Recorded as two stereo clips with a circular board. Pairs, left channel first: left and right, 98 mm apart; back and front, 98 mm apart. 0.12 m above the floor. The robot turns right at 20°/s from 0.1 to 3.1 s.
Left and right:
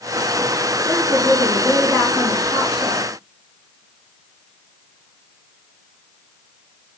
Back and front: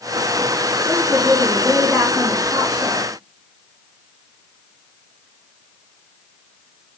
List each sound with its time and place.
0.8 s a woman speaking: 30° left, 2.5 m; by 3.1 s 75° left, 2.5 m